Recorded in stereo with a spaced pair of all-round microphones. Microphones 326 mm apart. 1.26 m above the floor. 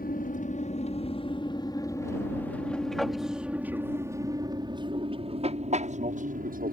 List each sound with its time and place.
0.0 s an aircraft: 25° left (ahead or behind); by 6.7 s 25° right (ahead or behind)